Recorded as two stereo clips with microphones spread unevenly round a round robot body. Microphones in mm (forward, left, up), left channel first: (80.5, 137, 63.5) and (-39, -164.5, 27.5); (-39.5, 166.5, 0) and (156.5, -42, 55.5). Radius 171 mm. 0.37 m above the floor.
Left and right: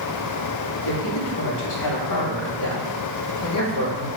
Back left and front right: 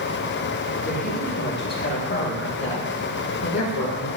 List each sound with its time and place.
0.8 s a man speaking: 80° left, 2.5 m; by 4.1 s 120° left, 3 m